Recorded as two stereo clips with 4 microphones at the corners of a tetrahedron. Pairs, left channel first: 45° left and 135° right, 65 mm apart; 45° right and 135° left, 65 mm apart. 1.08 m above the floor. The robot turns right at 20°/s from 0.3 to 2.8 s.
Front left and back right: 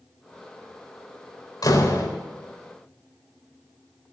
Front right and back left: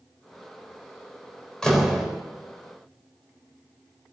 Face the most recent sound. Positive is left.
turn(degrees=60)